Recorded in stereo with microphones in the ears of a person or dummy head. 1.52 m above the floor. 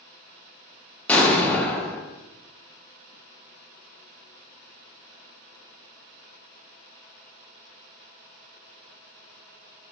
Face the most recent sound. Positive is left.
turn(degrees=10)  # may be behind; listen again after turning